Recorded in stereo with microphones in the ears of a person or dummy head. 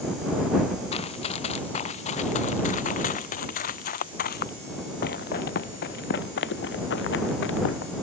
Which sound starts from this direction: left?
Running footsteps, at 0.9 s.